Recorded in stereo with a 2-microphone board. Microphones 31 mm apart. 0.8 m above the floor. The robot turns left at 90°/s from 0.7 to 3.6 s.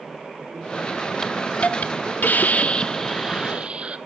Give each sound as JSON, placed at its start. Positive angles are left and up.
{"t": 1.2, "sound": "a hiss", "azimuth_deg": 175, "distance_m": 0.9}